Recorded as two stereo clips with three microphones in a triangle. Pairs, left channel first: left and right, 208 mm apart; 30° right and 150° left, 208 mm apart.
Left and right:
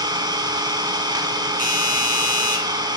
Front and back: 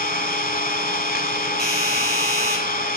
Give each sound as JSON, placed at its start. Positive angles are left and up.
{"t": 0.0, "sound": "an engine running", "azimuth_deg": -25, "distance_m": 0.9}
{"t": 1.6, "sound": "a doorbell", "azimuth_deg": -65, "distance_m": 2.5}